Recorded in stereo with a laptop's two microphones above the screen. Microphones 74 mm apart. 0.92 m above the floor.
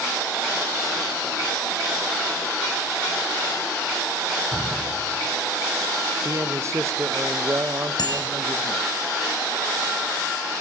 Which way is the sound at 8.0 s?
70° left (ahead or behind).